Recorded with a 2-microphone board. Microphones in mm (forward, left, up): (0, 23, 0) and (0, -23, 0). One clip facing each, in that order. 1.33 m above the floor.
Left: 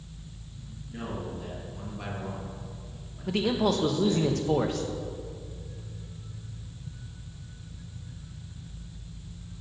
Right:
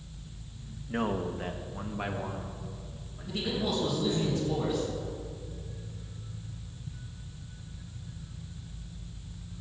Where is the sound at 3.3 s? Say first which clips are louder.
Left 6 dB; 75° left (ahead or behind), 1.5 m.